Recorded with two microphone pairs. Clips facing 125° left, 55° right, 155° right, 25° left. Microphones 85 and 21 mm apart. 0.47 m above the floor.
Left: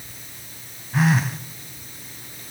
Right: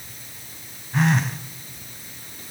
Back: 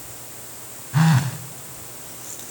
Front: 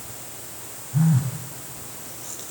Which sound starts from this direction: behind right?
A phone buzzing, at 0.9 s.